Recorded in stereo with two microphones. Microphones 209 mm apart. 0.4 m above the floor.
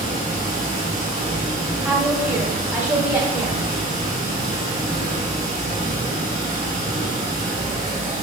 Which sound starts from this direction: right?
Running water, at 0.0 s.